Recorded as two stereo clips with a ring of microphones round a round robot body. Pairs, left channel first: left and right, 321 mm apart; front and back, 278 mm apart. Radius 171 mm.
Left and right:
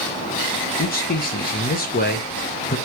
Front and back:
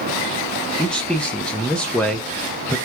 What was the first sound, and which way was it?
A man speaking, 85° left.